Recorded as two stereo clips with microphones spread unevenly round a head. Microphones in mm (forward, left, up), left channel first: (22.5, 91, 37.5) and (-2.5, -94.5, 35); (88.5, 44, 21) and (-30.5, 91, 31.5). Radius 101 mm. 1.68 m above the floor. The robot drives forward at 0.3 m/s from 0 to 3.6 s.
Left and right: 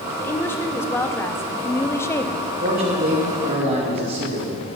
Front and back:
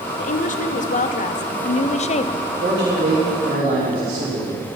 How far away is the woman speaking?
About 1.1 m.